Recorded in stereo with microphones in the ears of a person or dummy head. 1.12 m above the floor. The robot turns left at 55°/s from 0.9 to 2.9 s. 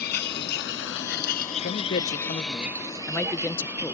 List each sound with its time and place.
0.0 s a vehicle: 65° left (ahead or behind); by 4.0 s 10° right (ahead or behind)
1.6 s a man speaking: 95° left; by 4.0 s 20° left